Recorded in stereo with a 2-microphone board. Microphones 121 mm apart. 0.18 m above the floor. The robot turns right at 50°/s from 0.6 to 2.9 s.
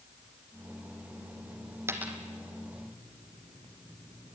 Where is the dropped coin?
20° right (ahead or behind), 1.8 m; by 2.2 s 5° right (ahead or behind), 1.8 m.